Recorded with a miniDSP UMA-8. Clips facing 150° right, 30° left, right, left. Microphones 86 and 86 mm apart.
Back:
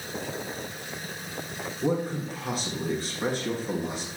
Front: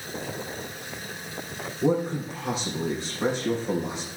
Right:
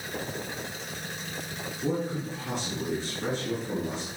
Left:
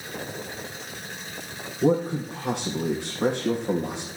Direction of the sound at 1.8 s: 105° left.